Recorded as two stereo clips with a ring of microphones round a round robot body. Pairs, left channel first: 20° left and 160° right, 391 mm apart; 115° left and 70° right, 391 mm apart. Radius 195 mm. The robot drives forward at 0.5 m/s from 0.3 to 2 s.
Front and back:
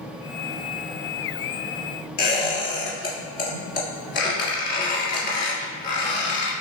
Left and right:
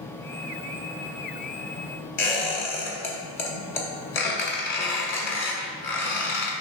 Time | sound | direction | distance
2.2 | a squeak | 90° left | 1.5 m